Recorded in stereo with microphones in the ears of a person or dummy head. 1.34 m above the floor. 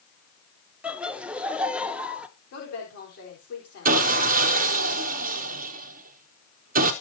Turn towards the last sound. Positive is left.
turn(degrees=-45)  # may be behind; listen again after turning